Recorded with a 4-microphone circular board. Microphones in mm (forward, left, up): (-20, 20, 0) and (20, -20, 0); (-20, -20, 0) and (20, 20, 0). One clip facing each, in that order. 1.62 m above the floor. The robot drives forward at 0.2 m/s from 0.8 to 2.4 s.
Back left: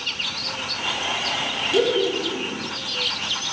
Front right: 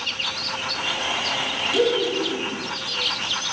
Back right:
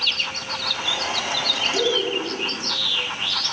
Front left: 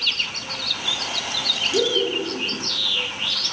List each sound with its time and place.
1.7 s laughter: 100° left, 1.4 m; by 2.6 s 105° left, 1.4 m